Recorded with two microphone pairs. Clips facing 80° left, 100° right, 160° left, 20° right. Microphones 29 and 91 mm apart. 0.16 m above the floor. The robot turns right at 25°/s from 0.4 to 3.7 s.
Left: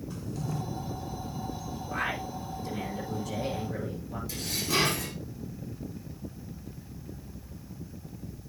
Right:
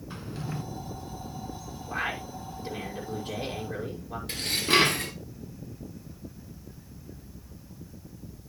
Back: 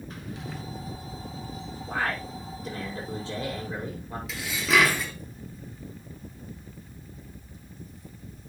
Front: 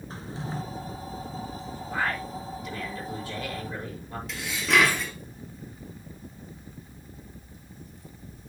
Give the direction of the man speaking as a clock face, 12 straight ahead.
6 o'clock.